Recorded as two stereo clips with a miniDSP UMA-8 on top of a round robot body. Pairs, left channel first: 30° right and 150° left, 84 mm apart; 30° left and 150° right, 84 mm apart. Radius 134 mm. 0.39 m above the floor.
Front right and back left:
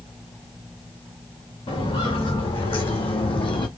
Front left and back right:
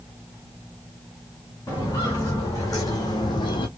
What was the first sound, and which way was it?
Footsteps, 30° right.